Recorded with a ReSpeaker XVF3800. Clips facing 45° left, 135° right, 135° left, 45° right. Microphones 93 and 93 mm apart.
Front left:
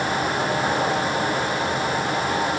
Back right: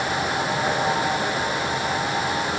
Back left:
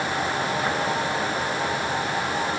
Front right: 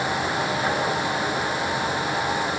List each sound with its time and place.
Only background noise.